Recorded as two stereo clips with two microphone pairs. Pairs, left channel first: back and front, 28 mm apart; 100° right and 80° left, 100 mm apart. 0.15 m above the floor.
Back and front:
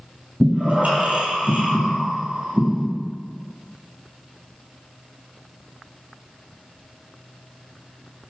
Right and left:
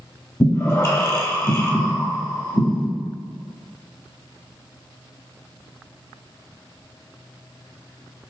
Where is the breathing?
40° right, 1.1 m.